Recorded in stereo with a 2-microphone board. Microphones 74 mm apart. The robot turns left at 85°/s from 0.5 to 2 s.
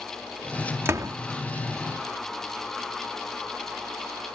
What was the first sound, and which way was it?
A door slam, 35° right (ahead or behind).